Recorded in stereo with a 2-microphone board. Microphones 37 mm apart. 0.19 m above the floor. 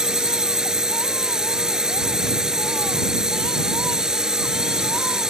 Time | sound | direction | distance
0.0 | a drone | 15° right (ahead or behind) | ?